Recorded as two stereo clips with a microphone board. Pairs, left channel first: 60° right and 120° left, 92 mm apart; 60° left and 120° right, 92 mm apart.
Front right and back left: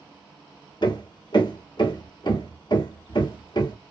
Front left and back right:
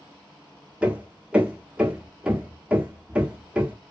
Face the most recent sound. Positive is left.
turn(degrees=-45)